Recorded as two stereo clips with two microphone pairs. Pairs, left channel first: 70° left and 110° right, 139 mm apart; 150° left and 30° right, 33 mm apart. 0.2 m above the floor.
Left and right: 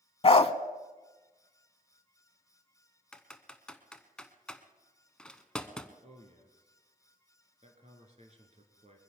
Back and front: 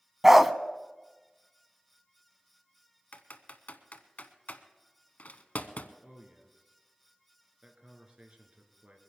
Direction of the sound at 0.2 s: 45° left.